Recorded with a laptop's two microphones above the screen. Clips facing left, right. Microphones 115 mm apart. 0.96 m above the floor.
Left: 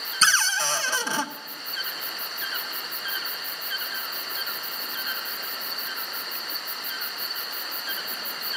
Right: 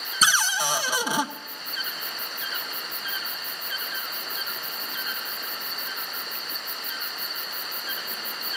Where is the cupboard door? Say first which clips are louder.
Even; 15° right (ahead or behind), 0.6 m.